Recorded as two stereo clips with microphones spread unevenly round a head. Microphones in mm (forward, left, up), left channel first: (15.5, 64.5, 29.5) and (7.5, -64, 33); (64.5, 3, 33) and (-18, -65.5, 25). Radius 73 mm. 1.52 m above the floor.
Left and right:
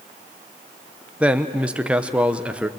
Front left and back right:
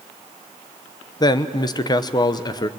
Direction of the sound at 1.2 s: 10° right.